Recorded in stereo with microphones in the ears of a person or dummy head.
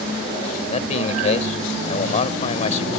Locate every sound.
0.7 s a man speaking: 40° left (ahead or behind)